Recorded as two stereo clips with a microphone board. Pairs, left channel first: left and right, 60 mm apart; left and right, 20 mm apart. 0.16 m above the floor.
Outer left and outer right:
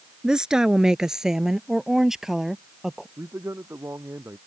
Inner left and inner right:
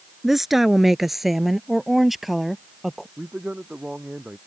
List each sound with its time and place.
0.2 s a woman speaking: 15° right (ahead or behind); by 3.1 s 5° right (ahead or behind)
3.2 s a man speaking: 50° right (ahead or behind)